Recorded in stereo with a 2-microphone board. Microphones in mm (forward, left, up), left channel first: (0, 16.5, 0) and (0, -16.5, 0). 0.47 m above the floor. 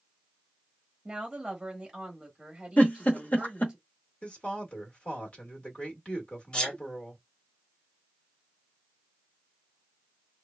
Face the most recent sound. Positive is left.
turn(degrees=30)  # may be behind; listen again after turning